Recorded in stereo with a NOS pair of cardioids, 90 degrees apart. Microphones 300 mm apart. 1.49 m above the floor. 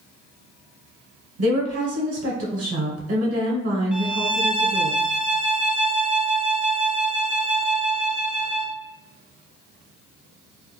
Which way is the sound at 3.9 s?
5° right.